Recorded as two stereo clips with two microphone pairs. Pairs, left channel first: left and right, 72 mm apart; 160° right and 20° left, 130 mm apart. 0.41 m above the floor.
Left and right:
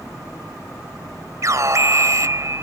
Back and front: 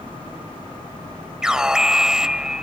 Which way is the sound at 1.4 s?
60° right.